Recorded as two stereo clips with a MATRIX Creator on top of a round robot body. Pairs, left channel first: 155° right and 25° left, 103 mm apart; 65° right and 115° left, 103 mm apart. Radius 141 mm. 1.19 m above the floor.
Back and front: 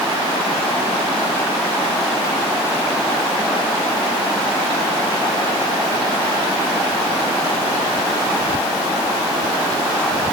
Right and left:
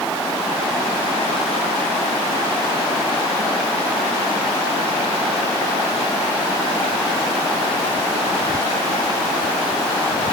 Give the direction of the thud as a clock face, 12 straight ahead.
No thud in this recording.